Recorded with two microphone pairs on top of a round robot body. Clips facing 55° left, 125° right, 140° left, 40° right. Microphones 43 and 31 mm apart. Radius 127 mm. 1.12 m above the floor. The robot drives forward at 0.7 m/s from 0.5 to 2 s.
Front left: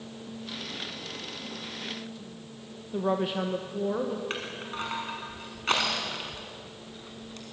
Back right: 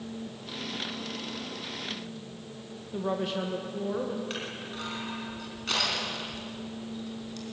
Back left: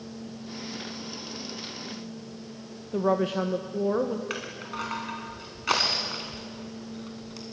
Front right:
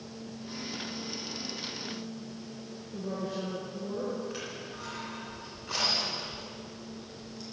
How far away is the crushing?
About 2.5 m.